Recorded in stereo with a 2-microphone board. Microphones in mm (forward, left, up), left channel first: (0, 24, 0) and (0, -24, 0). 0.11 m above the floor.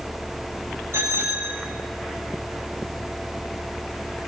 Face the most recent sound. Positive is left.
turn(degrees=-70)  # may be behind; listen again after turning